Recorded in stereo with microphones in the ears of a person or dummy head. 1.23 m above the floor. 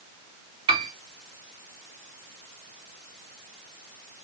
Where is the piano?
30° right (ahead or behind), 0.7 m.